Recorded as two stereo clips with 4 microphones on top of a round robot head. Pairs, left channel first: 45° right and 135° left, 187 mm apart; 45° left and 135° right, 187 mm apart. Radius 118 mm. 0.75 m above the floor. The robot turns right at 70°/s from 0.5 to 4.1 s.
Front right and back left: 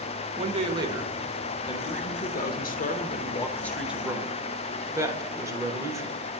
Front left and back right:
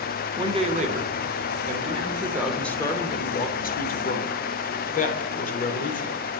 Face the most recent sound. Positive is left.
turn(degrees=65)